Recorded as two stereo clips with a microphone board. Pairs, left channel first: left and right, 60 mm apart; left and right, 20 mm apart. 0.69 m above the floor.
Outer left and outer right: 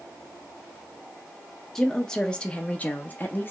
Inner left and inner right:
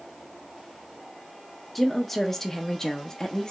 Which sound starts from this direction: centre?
A woman speaking, at 1.8 s.